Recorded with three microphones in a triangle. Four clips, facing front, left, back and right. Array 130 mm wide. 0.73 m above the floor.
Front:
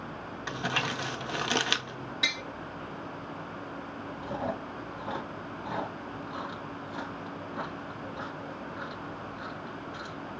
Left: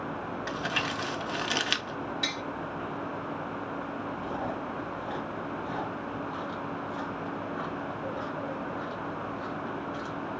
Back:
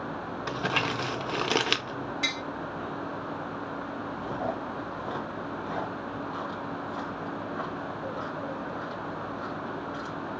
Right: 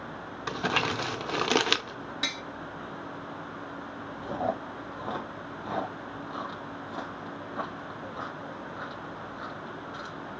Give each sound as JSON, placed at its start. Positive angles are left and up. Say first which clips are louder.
{"t": 0.5, "sound": "crumpling", "louder": "right 6 dB, back 3 dB", "azimuth_deg": -115, "distance_m": 0.7}
{"t": 2.2, "sound": "tapping", "louder": "left 2 dB, back 2 dB", "azimuth_deg": -100, "distance_m": 2.0}
{"t": 4.2, "sound": "chewing", "louder": "right 6 dB, back 1 dB", "azimuth_deg": -110, "distance_m": 2.5}